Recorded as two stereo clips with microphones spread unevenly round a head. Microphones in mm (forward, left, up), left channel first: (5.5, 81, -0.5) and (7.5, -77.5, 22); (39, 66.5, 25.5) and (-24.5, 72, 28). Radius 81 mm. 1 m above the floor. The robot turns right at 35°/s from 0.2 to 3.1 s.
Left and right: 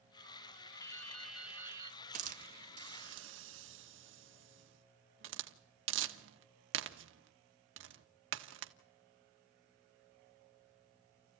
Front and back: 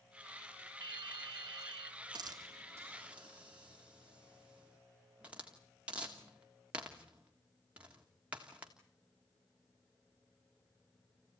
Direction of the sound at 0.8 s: 165° left.